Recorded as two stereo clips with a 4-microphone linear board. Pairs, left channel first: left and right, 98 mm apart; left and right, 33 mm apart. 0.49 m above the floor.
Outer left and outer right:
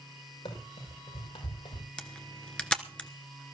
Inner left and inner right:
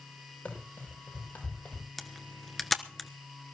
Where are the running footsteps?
85° left, 7 m.